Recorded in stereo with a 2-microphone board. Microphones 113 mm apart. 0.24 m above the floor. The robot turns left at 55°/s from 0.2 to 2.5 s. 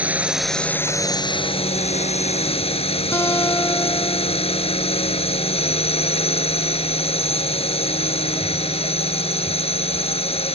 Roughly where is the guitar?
Left.